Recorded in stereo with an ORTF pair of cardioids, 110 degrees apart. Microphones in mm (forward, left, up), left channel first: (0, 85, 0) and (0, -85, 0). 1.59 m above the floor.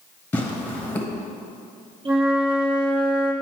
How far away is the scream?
I don't hear a scream.